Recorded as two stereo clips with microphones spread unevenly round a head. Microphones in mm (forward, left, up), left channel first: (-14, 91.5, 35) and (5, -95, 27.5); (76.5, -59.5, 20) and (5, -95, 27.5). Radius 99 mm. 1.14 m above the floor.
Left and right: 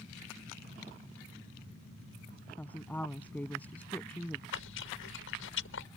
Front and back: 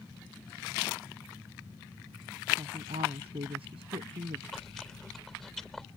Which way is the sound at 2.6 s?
175° left.